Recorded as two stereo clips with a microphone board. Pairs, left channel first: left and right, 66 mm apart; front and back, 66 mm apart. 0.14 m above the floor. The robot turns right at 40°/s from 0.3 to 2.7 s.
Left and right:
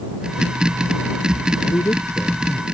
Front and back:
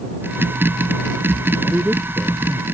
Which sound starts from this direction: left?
A man speaking, at 1.6 s.